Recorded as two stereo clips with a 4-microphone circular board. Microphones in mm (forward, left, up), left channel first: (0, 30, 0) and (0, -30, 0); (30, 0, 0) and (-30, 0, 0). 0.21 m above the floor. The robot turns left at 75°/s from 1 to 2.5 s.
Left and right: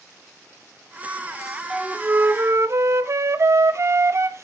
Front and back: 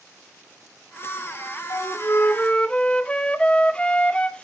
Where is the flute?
10° right, 0.5 m; by 4.5 s 70° right, 0.5 m.